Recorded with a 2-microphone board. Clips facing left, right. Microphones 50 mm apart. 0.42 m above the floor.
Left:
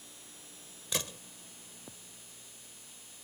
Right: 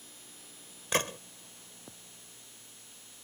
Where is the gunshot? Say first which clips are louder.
Right 7 dB; 50° right (ahead or behind).